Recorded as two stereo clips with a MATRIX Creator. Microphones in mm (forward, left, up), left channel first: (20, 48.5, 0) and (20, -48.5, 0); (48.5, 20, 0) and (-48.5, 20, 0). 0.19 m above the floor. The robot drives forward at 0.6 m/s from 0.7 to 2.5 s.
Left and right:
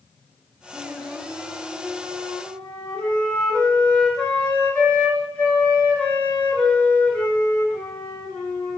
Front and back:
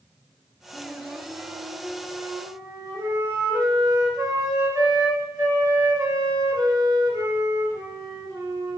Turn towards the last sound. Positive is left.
turn(degrees=160)